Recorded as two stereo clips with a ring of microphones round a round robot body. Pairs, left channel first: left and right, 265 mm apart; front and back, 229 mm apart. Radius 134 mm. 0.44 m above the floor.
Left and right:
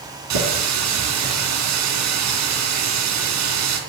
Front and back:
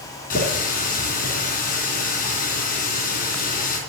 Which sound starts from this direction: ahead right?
A running tap, at 0.3 s.